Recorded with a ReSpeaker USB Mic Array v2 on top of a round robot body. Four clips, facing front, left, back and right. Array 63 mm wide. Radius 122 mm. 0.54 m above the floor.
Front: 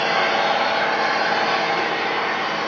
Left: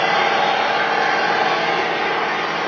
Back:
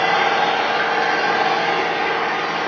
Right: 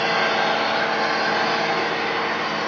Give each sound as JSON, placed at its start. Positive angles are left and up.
{"t": 0.0, "sound": "an engine running", "azimuth_deg": 145, "distance_m": 4.5}